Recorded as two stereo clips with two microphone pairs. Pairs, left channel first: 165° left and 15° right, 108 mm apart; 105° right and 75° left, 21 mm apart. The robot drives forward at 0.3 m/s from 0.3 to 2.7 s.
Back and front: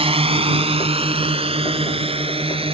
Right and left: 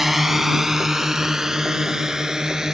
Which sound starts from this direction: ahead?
A drone, at 0.0 s.